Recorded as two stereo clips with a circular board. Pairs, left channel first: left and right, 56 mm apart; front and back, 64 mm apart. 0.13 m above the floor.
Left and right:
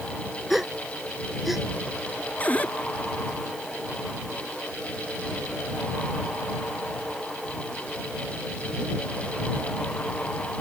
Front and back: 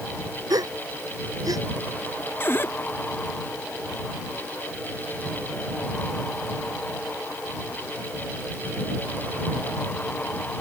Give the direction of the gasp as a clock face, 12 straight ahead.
6 o'clock.